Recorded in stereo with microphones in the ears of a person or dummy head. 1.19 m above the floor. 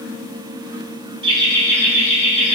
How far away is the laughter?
About 0.6 m.